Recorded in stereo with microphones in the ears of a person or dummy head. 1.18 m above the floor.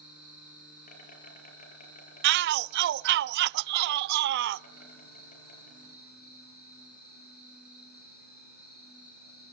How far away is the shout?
About 0.7 m.